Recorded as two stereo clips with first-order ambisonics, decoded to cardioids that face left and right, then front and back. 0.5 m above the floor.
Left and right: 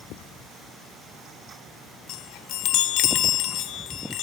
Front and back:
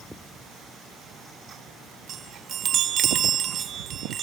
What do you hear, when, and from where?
2.1 s a chime: 125° left, 0.6 m